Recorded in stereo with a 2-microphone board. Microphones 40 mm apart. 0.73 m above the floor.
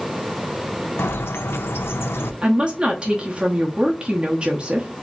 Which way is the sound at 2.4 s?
25° right (ahead or behind).